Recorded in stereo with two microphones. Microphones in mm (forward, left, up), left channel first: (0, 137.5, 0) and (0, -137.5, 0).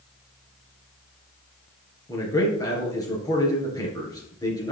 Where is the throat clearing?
I don't hear throat clearing.